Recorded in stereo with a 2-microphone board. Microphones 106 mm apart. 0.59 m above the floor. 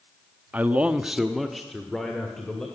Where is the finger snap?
No finger snap in this recording.